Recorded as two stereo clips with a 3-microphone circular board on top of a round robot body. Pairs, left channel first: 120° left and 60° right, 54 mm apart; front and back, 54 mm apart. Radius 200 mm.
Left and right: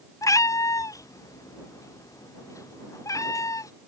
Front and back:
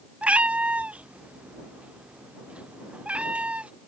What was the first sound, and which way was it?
A cat meowing, 115° left.